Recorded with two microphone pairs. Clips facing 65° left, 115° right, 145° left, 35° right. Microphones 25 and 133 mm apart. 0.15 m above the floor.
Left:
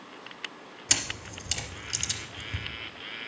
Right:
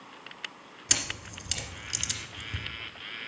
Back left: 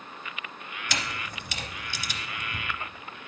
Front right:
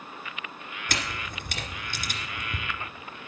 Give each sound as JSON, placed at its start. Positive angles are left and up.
{"t": 0.9, "sound": "a camera shutter", "azimuth_deg": -30, "distance_m": 1.8}